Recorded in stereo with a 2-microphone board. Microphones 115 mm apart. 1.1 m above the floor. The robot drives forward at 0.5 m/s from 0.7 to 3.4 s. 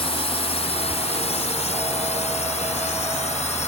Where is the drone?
60° left (ahead or behind); by 3.7 s 75° left (ahead or behind).